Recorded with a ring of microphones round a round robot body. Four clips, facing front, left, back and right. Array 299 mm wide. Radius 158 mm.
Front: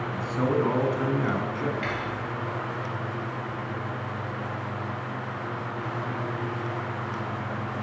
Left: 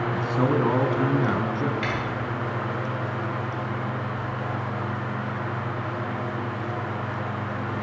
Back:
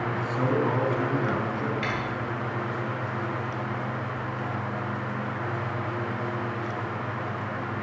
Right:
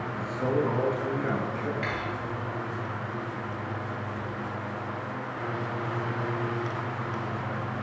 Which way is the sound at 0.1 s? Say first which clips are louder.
Left 3 dB, front 2 dB; 85° left.